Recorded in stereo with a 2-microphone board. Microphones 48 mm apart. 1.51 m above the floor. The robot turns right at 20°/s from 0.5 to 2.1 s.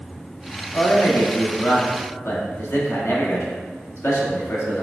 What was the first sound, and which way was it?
A man speaking, 80° left.